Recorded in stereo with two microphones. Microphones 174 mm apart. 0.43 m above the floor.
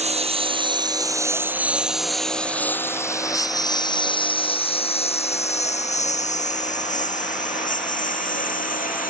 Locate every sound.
0.0 s a lawn mower: 40° right (ahead or behind); by 9.1 s 55° left (ahead or behind)